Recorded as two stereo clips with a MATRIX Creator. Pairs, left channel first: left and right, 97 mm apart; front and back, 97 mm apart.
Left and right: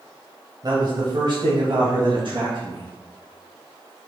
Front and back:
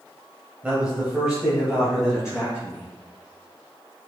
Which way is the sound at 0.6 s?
110° right.